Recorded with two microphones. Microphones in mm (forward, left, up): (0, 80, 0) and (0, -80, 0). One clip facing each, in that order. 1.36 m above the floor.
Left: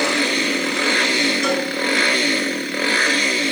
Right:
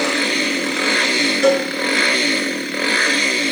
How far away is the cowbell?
About 3 m.